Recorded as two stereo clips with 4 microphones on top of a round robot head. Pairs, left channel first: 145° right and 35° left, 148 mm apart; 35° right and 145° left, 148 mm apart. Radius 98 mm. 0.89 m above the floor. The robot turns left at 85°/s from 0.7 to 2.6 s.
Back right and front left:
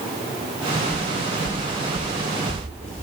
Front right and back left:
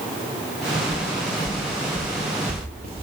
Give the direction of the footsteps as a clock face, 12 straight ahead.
12 o'clock.